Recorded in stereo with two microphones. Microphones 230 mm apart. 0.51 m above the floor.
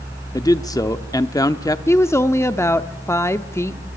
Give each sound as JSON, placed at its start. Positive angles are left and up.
{"t": 0.3, "sound": "a man speaking", "side_deg": 15, "distance_m": 0.7}
{"t": 1.9, "sound": "a woman speaking", "side_deg": 10, "distance_m": 0.7}